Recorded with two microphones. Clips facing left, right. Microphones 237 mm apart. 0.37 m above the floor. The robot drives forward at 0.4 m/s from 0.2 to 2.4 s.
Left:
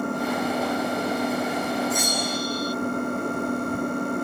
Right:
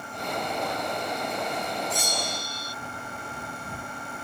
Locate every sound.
0.0 s an engine running: 60° left (ahead or behind); by 4.2 s 55° left (ahead or behind)
1.9 s a bell: 30° right (ahead or behind)